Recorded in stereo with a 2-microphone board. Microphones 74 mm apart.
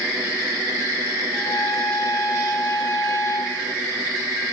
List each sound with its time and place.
1.3 s a trumpet: 45° left (ahead or behind), 8 m